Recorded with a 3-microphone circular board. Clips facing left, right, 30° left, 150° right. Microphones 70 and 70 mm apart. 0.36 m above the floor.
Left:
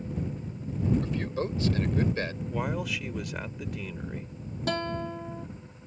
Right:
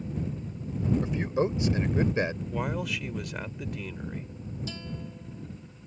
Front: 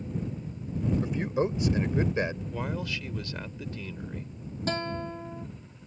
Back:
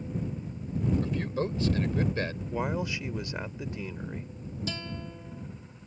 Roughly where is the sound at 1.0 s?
Ahead right.